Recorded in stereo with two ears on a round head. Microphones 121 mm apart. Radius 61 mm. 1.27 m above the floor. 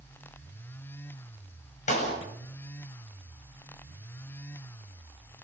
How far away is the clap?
About 8 m.